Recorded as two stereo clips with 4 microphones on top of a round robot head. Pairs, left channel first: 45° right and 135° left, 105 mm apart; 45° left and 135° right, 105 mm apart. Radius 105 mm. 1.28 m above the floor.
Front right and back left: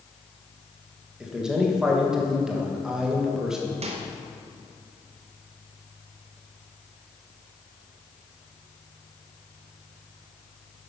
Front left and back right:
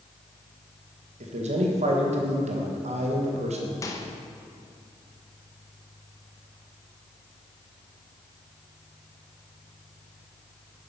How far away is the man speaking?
About 1.5 m.